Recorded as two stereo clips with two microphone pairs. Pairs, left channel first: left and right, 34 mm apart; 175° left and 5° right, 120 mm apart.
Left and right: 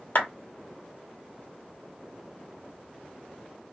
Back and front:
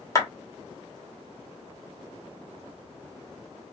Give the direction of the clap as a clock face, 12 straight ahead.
8 o'clock.